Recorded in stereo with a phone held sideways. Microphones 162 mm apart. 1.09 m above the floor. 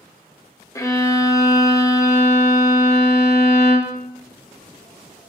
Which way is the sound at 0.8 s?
20° left (ahead or behind).